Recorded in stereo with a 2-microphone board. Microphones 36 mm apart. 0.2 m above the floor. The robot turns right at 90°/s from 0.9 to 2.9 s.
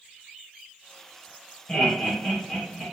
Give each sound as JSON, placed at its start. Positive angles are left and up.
{"t": 1.7, "sound": "laughter", "side_deg": 20, "distance_m": 1.0}